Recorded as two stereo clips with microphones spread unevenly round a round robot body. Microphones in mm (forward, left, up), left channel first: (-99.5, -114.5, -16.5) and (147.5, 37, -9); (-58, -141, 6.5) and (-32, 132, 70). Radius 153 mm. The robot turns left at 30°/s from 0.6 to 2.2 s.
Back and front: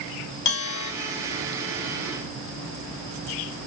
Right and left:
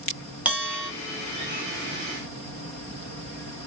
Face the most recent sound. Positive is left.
turn(degrees=135)